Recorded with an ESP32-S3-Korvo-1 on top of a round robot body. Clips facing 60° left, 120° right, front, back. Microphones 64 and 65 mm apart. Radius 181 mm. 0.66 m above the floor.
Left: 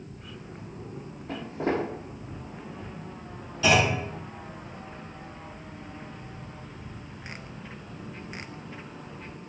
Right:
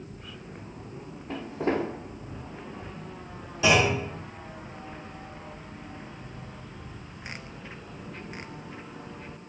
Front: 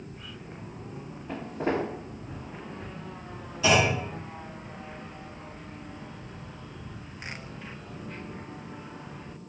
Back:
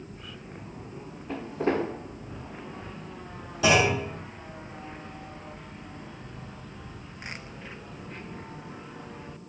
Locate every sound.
1.3 s footsteps: 80° left, 1.4 m
3.6 s a clunk: 165° left, 0.9 m